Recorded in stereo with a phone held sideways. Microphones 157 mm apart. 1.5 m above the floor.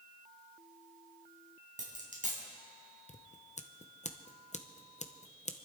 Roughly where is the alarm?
No alarm in this recording.